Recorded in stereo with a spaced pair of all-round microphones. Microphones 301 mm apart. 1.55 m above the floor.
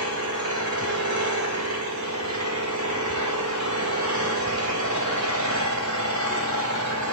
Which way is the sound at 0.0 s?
70° right (ahead or behind).